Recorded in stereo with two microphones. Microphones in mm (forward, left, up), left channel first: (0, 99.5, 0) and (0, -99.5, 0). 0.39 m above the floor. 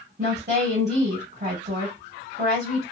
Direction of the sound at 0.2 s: 45° right (ahead or behind).